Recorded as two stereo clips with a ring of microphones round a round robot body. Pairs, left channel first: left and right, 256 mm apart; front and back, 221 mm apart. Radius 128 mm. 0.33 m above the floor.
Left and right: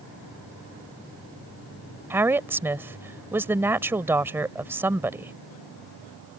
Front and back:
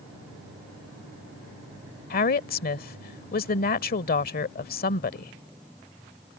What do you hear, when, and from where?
2.1 s a woman speaking: 15° right